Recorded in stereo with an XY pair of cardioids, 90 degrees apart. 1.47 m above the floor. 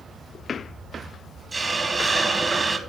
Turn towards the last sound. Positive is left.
turn(degrees=-30)